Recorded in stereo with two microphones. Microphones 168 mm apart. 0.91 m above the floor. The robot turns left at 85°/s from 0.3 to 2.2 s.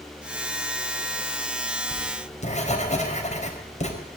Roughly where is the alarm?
I don't hear an alarm.